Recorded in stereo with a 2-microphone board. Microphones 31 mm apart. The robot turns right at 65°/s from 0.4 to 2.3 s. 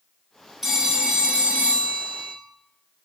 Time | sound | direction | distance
0.6 | a phone ringing | 170° right | 1.0 m